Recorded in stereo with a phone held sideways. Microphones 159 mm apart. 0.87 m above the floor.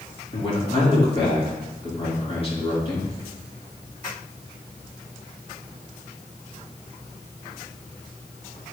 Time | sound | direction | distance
0.3 | a man speaking | 35° left (ahead or behind) | 2.5 m